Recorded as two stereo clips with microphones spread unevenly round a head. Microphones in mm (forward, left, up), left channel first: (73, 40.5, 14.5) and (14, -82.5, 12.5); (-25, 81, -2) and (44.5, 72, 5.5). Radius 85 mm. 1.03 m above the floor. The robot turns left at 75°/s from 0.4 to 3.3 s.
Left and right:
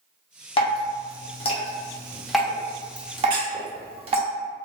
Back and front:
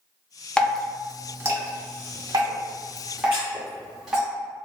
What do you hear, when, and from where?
0.6 s dripping: 105° left, 0.8 m; by 4.2 s 100° right, 0.8 m
3.3 s a squeak: 90° right, 1.4 m